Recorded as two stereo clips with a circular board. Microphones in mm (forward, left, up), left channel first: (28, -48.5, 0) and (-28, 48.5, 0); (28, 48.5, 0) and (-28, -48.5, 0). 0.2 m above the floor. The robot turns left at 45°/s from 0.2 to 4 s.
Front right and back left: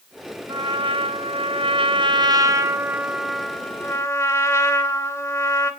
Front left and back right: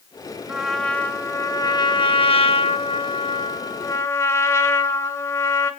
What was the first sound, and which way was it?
A trumpet, 160° left.